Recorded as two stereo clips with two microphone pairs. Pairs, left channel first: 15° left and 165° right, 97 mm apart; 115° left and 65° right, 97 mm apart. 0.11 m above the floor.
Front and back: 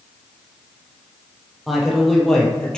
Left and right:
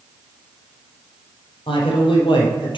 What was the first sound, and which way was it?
A man speaking, 105° left.